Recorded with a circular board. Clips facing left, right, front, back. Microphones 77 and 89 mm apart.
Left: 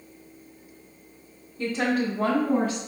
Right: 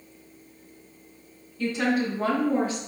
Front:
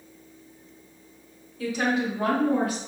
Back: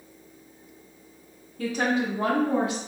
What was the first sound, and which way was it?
A woman speaking, 145° left.